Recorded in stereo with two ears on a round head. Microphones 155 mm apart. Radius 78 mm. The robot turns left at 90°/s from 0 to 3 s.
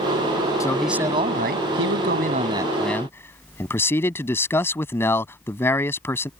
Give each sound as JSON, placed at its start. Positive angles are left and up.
{"t": 0.6, "sound": "a man speaking", "azimuth_deg": 20}